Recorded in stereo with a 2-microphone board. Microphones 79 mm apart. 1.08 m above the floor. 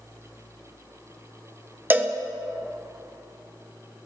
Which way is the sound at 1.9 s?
25° right (ahead or behind).